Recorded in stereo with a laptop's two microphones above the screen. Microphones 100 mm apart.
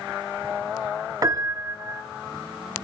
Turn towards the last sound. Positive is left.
turn(degrees=-35)  # may be behind; listen again after turning